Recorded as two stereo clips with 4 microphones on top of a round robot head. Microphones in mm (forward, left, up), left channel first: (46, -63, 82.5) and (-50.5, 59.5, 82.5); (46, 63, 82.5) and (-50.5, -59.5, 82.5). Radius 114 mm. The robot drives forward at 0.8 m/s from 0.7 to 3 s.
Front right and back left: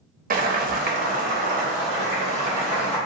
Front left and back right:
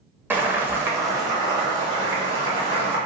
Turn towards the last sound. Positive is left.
turn(degrees=175)